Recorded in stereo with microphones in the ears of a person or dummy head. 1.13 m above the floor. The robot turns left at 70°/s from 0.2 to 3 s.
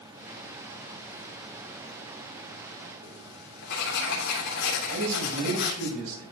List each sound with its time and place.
3.0 s writing: 60° left (ahead or behind), 3 m
4.9 s a man speaking: 55° right (ahead or behind), 6 m